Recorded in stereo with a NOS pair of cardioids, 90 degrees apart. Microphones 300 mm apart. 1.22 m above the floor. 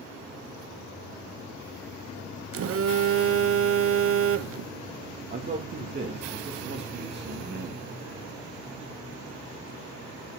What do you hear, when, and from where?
2.5 s a phone buzzing: 50° right, 0.7 m
5.3 s a man speaking: 35° right, 2 m